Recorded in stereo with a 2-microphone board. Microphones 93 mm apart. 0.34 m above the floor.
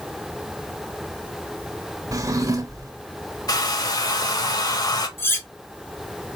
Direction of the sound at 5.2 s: 25° left (ahead or behind).